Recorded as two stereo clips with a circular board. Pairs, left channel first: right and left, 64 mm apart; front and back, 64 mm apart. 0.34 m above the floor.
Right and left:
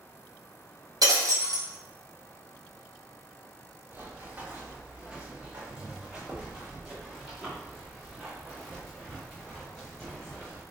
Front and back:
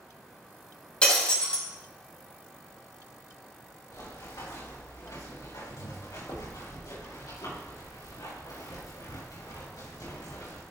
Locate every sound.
1.0 s breaking glass: 70° left, 2.5 m
3.9 s running footsteps: 25° left, 4 m; by 10.6 s 5° right, 7 m